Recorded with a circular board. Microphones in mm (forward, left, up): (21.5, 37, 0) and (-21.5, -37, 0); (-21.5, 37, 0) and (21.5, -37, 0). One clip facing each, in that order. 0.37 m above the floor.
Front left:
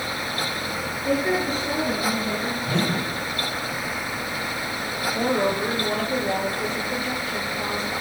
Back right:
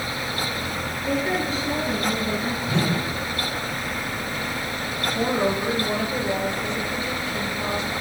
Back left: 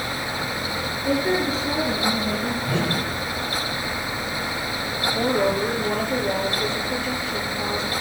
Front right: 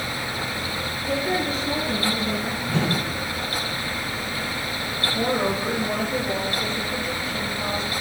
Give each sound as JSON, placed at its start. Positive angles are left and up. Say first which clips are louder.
{"t": 1.1, "sound": "a woman speaking", "louder": "front left 2 dB, back left 3 dB", "azimuth_deg": 110, "distance_m": 6.0}
{"t": 2.7, "sound": "a whoosh", "louder": "even, front right 2 dB", "azimuth_deg": 100, "distance_m": 9.0}
{"t": 5.1, "sound": "a woman speaking", "louder": "even, back left 2 dB", "azimuth_deg": 110, "distance_m": 5.5}